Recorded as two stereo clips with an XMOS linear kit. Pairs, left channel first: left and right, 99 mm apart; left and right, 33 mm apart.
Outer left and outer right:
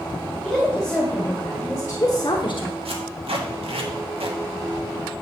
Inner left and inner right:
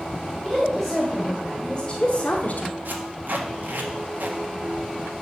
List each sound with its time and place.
0.4 s a woman speaking: 5° right (ahead or behind), 3 m; by 2.8 s 65° left (ahead or behind), 1.3 m
2.9 s tape being pulled: 70° right (ahead or behind), 1.6 m